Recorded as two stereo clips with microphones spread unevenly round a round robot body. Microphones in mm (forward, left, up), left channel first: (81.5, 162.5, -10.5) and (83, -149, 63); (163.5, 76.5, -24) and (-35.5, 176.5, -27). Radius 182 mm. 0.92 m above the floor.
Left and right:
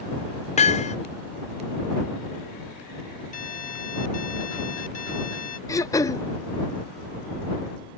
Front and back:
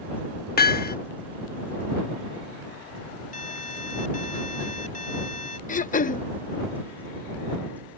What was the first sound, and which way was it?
Hammering, 15° left.